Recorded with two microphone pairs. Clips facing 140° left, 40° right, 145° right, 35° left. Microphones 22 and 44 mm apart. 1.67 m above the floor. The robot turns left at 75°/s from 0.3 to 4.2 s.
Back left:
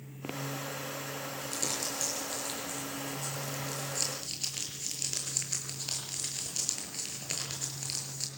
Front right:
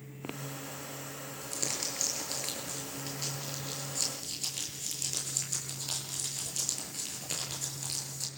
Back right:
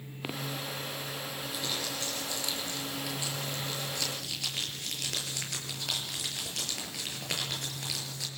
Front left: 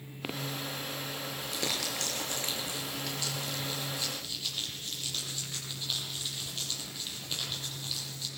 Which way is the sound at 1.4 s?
60° left.